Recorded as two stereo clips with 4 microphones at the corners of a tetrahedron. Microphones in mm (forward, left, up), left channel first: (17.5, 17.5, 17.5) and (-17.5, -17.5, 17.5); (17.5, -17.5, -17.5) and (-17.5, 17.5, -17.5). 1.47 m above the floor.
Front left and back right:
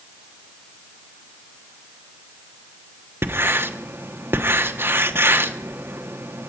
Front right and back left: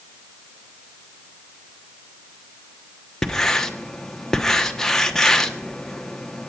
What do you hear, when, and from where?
3.2 s writing: 120° right, 1.2 m